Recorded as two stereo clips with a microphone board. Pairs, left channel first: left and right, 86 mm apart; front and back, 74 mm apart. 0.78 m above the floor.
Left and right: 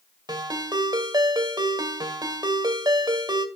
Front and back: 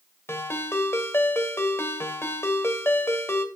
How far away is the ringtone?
About 2.0 m.